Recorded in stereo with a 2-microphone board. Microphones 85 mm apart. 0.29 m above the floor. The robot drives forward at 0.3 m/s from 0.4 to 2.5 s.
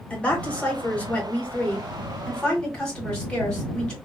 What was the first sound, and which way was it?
A woman speaking, 15° left (ahead or behind).